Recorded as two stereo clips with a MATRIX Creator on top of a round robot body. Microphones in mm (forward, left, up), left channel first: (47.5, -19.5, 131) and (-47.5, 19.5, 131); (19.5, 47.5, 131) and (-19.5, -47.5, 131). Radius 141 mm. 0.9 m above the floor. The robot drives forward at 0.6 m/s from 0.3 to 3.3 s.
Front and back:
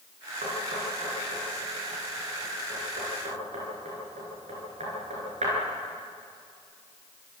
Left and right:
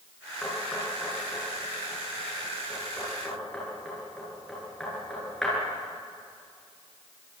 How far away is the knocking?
About 10 m.